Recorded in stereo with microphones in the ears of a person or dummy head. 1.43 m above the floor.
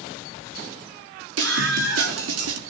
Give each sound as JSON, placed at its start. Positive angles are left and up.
{"t": 1.4, "sound": "a scream", "side_deg": -85, "distance_m": 4.0}